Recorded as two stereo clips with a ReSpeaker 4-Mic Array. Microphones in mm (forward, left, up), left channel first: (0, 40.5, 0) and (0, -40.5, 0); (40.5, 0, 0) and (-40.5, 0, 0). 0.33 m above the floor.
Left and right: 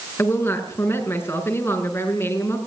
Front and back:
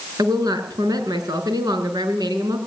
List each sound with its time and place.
0.2 s a woman speaking: 145° left, 5 m